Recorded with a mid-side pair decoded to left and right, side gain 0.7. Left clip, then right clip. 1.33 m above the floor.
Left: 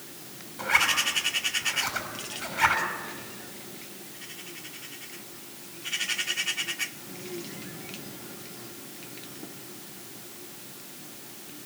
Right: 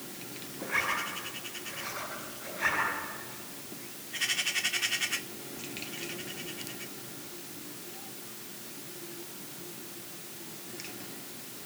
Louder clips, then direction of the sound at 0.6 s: Left 7 dB; 70° left.